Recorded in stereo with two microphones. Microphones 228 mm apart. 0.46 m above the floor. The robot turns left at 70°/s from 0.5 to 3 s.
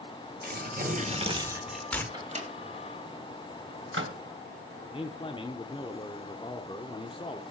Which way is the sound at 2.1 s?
20° right (ahead or behind).